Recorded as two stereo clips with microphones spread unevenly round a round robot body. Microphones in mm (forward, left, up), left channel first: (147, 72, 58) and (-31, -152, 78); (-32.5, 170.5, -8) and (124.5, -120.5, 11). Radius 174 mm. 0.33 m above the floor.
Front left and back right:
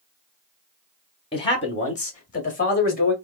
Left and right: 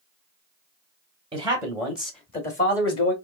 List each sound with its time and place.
1.3 s a man speaking: 5° left, 1.0 m; by 3.1 s 100° left, 1.3 m